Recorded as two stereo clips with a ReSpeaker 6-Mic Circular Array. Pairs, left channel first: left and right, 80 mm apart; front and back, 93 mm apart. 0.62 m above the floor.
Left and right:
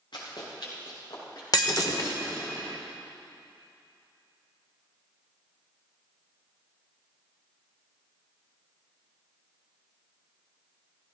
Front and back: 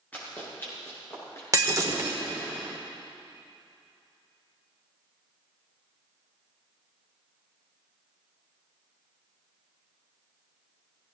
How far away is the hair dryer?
No hair dryer in this recording.